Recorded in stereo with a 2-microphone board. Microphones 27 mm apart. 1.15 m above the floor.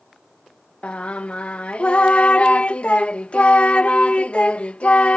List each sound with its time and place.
0.8 s singing: 50° left (ahead or behind)